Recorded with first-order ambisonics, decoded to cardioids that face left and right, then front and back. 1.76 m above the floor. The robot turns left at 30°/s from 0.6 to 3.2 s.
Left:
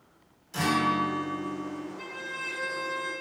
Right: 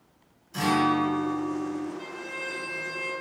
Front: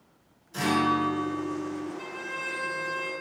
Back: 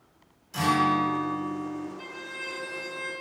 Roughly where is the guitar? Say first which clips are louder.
Right 2 dB, back 2 dB; behind left.